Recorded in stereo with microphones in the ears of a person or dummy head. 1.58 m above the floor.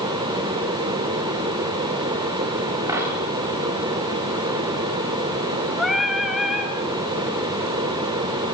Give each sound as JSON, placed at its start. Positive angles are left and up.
{"t": 2.9, "sound": "a dropped coin", "side_deg": -15, "distance_m": 8.5}
{"t": 5.8, "sound": "singing", "side_deg": 0, "distance_m": 2.5}